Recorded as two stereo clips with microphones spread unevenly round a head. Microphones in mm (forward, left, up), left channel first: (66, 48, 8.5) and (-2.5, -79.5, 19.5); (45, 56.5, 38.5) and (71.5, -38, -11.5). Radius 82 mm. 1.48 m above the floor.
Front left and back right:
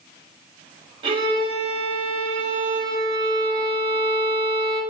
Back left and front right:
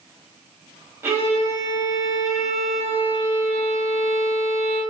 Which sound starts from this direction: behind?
A violin, at 1.0 s.